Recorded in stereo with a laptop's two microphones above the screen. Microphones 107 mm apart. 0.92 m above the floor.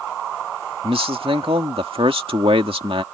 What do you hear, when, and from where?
0.8 s a man speaking: 60° right (ahead or behind)